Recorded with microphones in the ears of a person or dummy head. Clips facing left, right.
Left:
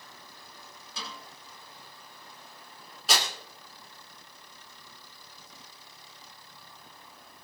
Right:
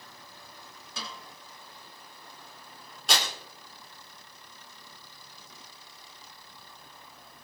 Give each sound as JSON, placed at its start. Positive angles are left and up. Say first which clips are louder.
{"t": 1.0, "sound": "a snare drum", "louder": "right 1 dB", "side_deg": -55, "distance_m": 6.5}
{"t": 3.1, "sound": "tearing paper", "louder": "even", "side_deg": 0, "distance_m": 4.0}